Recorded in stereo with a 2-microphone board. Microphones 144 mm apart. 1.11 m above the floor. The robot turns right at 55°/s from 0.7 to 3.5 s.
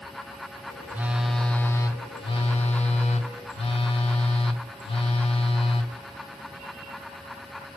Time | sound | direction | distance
0.9 | a phone buzzing | 25° right | 0.7 m